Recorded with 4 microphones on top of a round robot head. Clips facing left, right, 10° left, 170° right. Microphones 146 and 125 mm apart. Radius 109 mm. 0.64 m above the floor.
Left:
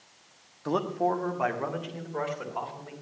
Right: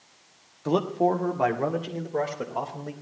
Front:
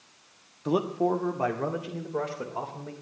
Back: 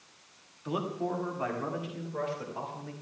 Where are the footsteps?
No footsteps in this recording.